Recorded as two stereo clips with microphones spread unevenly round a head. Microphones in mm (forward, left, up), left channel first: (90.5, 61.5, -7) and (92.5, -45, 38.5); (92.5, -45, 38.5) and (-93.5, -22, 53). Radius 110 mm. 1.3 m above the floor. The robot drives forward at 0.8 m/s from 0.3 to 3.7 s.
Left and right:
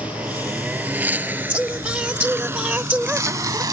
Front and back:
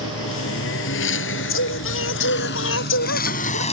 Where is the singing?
15° right.